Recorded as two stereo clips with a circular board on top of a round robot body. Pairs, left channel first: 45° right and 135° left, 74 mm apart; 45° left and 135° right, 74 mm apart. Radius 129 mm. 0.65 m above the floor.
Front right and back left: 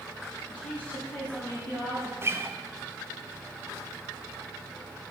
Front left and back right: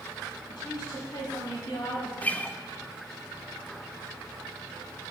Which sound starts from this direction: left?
A guitar, at 2.2 s.